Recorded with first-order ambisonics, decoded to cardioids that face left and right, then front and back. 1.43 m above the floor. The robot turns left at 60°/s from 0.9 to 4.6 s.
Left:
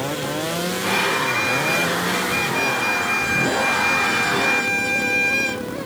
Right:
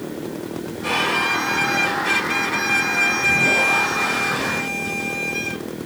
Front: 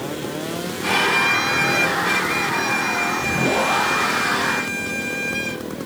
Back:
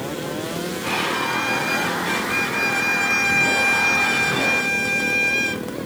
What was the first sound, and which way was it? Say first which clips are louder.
A violin: right 1 dB, front 6 dB; 10° right.